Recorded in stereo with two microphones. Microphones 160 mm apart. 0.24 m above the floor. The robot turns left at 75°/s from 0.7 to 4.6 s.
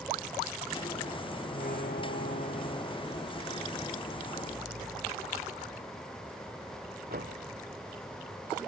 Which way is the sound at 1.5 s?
50° left (ahead or behind).